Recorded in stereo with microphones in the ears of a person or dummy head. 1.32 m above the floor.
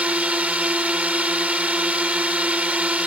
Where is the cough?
I don't hear a cough.